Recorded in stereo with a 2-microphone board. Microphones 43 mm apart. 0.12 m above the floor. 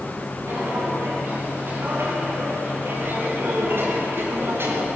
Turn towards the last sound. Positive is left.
turn(degrees=-60)  # may be behind; listen again after turning